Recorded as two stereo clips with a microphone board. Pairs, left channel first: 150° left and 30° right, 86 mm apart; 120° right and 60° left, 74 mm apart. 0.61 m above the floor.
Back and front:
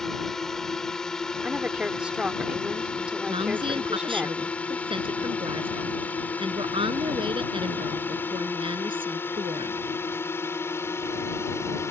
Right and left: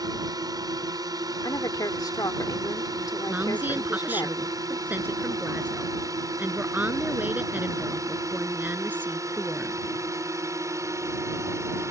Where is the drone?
65° left; by 11.9 s 95° left.